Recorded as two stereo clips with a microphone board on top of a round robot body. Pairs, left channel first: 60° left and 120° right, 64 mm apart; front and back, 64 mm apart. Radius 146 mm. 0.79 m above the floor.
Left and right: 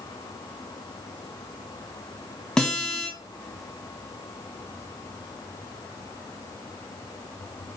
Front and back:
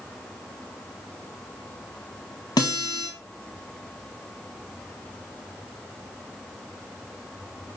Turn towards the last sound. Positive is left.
turn(degrees=-20)